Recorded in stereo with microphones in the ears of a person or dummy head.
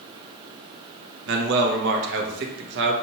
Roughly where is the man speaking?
Right.